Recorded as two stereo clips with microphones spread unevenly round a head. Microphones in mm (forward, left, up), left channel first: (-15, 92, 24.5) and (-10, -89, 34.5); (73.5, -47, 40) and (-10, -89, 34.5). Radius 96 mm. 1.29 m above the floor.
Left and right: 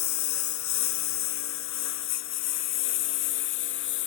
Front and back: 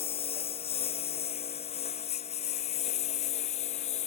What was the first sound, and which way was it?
A lawn mower, 80° left.